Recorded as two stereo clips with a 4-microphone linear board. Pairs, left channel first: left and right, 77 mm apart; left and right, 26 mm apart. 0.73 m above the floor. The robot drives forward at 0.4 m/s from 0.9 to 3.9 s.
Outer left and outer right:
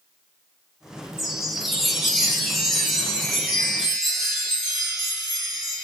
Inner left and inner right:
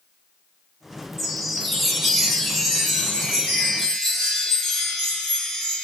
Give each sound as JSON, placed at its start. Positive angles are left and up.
{"t": 1.2, "sound": "a chime", "side_deg": -5, "distance_m": 0.6}